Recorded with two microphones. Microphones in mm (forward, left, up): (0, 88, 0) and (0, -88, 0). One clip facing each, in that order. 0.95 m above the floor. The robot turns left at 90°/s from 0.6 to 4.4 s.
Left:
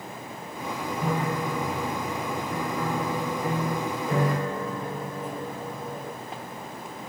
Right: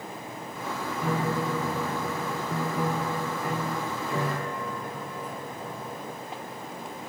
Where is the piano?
5° left, 0.9 m; by 6.1 s 60° left, 0.9 m.